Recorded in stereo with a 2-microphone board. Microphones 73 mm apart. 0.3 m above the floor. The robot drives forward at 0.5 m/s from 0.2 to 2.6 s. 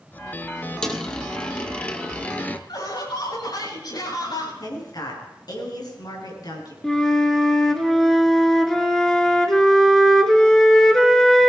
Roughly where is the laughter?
Left.